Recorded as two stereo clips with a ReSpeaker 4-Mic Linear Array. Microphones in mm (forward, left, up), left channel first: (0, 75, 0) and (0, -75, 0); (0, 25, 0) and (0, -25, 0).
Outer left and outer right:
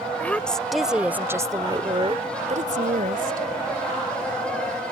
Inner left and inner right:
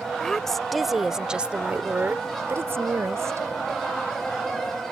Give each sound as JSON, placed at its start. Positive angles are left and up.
{"t": 0.2, "sound": "a woman speaking", "side_deg": 10}